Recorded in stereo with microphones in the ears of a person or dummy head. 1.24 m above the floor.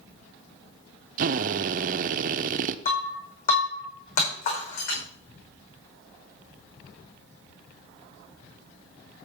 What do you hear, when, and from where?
1.2 s a drill: 50° right (ahead or behind), 0.6 m
2.9 s breaking glass: 50° left (ahead or behind), 5.5 m